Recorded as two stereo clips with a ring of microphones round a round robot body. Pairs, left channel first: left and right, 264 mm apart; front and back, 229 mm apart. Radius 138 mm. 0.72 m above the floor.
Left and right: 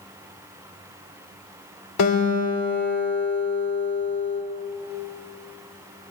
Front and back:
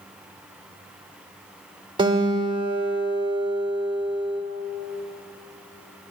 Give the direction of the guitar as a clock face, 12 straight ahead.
8 o'clock.